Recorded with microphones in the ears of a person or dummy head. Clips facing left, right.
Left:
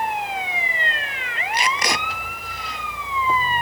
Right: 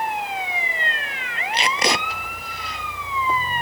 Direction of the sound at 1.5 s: 25° right (ahead or behind).